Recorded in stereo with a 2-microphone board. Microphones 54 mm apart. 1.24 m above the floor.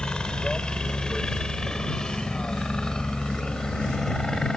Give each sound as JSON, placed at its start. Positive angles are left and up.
{"t": 0.0, "sound": "a helicopter", "side_deg": 15}